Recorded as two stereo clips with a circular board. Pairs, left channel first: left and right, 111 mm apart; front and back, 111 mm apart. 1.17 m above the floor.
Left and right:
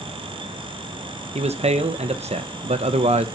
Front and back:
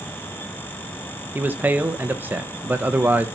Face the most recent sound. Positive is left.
turn(degrees=-105)